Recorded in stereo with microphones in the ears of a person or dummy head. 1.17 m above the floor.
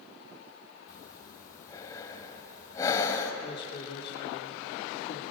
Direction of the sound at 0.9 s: 20° left (ahead or behind).